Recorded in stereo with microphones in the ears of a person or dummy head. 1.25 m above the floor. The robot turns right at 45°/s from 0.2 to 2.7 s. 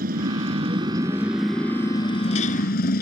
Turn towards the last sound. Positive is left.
turn(degrees=60)